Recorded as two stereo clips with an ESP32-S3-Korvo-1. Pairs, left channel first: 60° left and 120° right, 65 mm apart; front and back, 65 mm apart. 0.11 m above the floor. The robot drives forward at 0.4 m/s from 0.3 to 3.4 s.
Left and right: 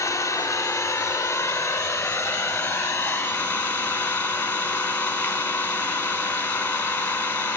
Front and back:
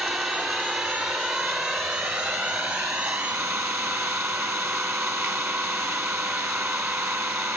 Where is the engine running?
105° left, 3 m; by 7.6 s 125° left, 3.5 m.